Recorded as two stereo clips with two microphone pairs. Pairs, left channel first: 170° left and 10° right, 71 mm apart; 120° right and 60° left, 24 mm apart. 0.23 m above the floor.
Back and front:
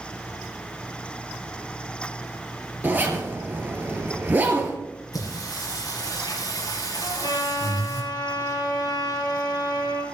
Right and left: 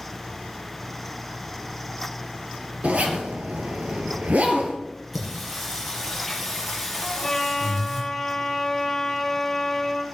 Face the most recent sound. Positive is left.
turn(degrees=165)